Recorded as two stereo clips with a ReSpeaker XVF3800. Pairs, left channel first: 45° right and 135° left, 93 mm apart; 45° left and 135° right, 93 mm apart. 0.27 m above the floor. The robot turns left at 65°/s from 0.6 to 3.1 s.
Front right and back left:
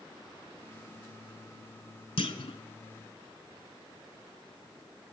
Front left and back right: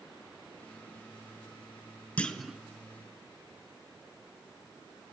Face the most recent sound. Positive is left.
turn(degrees=-90)